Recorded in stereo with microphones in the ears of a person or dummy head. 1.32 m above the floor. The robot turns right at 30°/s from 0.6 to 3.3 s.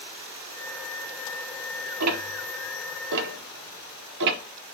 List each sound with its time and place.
2.0 s ticking: 70° right (ahead or behind), 1.4 m; by 4.4 s 65° right (ahead or behind), 1.4 m